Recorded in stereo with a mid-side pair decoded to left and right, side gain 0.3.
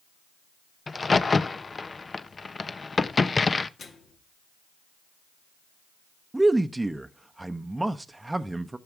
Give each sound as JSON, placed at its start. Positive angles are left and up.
{"t": 0.9, "sound": "a crack", "azimuth_deg": 45, "distance_m": 0.7}
{"t": 3.8, "sound": "a microwave", "azimuth_deg": 65, "distance_m": 2.5}
{"t": 6.3, "sound": "a man speaking", "azimuth_deg": -20, "distance_m": 0.8}